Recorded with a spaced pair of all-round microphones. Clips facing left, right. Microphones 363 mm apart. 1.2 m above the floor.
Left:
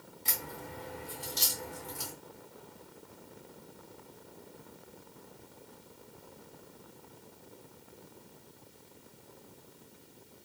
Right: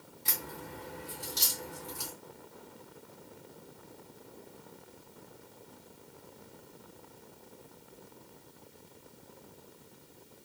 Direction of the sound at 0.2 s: 30° right (ahead or behind).